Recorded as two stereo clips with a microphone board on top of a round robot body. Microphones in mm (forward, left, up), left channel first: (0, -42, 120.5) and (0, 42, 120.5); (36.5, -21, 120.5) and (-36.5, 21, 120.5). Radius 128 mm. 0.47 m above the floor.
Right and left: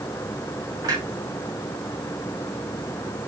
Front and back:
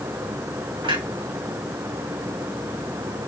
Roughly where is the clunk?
Behind left.